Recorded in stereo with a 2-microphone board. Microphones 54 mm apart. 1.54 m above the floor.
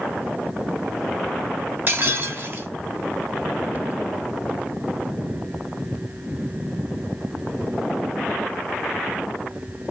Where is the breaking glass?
40° right (ahead or behind), 2 m.